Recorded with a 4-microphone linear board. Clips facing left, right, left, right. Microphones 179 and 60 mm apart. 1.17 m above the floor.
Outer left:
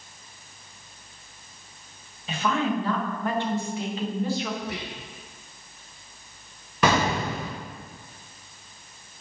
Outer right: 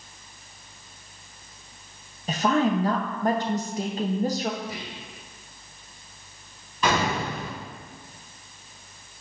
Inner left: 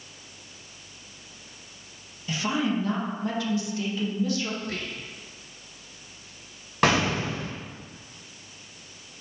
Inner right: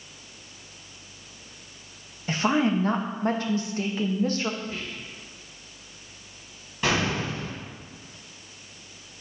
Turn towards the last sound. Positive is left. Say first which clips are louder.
# outer left 2 dB, inner left 3 dB
turn(degrees=75)  # may be behind; listen again after turning